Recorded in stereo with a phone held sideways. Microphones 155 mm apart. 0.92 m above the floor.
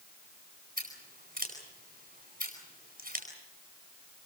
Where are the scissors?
65° right (ahead or behind), 9.5 m.